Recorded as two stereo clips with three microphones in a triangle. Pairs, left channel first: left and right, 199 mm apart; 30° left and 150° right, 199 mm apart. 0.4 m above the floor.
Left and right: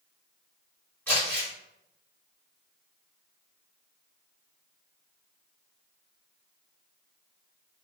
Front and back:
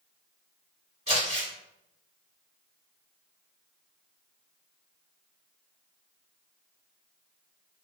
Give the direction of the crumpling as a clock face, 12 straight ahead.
6 o'clock.